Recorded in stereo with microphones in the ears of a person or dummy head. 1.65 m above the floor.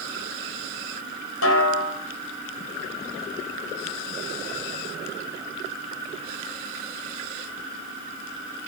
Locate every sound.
1.4 s a snare drum: 75° left (ahead or behind), 9.5 m